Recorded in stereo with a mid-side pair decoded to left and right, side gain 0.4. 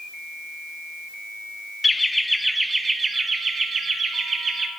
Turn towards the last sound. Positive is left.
turn(degrees=-55)